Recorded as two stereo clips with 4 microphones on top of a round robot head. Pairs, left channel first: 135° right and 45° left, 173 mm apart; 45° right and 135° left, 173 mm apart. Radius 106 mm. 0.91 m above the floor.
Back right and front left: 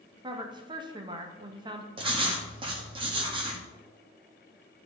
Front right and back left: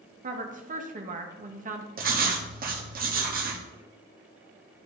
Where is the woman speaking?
105° left, 1.2 m.